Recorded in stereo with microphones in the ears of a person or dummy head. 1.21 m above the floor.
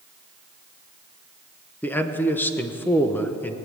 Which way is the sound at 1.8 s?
10° left (ahead or behind).